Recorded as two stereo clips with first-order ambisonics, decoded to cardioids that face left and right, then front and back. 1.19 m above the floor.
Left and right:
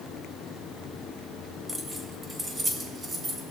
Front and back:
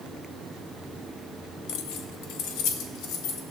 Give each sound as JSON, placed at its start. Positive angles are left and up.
{"t": 1.7, "sound": "keys jangling", "azimuth_deg": -10, "distance_m": 1.0}